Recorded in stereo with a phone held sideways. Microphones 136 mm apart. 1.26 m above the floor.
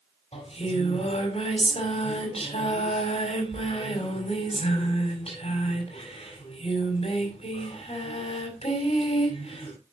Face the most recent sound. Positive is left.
turn(degrees=50)  # may be behind; listen again after turning